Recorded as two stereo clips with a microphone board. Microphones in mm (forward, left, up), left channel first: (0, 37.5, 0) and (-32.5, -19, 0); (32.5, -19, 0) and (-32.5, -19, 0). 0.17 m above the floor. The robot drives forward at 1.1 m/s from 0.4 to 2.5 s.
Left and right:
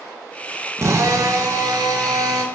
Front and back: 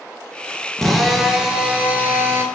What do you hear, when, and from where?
0.8 s a drill: 80° right, 2 m; by 2.4 s 130° right, 2.5 m